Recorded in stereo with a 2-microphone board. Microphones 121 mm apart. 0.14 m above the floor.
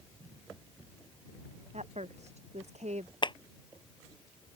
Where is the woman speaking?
70° right (ahead or behind).